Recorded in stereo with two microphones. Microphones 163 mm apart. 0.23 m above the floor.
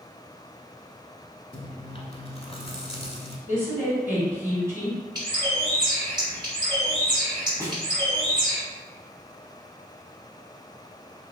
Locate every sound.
1.5 s chewing: 35° left (ahead or behind), 0.7 m
3.5 s a woman speaking: 15° right (ahead or behind), 1.6 m
5.2 s a bird: 25° right (ahead or behind), 2.0 m
7.6 s a snare drum: 20° right (ahead or behind), 0.9 m